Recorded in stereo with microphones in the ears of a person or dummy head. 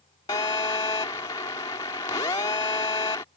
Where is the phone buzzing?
20° left (ahead or behind).